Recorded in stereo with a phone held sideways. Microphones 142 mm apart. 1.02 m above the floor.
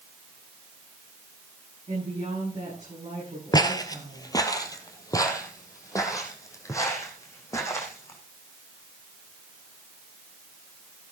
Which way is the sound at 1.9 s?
50° right (ahead or behind).